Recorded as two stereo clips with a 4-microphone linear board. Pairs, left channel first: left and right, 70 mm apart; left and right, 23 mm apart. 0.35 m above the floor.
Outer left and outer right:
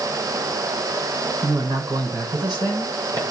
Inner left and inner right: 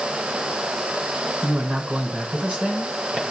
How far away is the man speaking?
About 3 m.